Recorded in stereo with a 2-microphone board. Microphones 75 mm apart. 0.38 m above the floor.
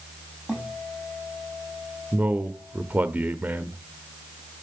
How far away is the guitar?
About 5 m.